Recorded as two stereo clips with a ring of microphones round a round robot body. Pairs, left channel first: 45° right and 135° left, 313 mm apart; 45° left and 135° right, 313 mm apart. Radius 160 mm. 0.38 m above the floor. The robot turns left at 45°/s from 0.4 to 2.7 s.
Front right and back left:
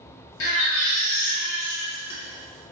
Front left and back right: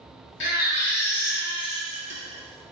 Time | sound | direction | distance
0.4 | a baby crying | 5° right | 0.7 m